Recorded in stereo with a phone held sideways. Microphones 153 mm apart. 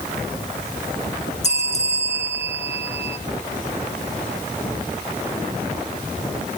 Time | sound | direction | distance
1.4 | a bell | 45° left (ahead or behind) | 0.9 m